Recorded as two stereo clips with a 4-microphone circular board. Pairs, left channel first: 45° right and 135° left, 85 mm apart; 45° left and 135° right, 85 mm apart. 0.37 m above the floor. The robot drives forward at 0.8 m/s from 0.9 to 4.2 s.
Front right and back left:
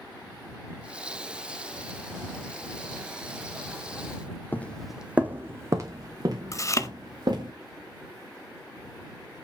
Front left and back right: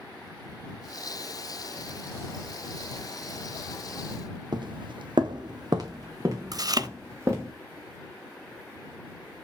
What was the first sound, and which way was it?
Footsteps, 110° right.